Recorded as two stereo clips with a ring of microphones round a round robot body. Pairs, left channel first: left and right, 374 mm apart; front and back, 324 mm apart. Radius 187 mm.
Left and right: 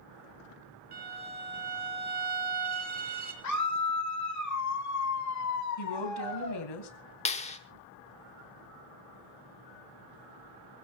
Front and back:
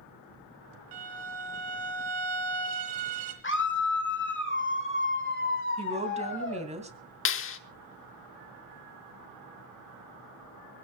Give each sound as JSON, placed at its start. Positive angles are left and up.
{"t": 0.9, "sound": "a violin", "azimuth_deg": -155, "distance_m": 3.0}
{"t": 3.4, "sound": "a scream", "azimuth_deg": 50, "distance_m": 1.4}
{"t": 5.8, "sound": "a woman speaking", "azimuth_deg": 110, "distance_m": 3.0}
{"t": 7.2, "sound": "a clap", "azimuth_deg": 25, "distance_m": 1.1}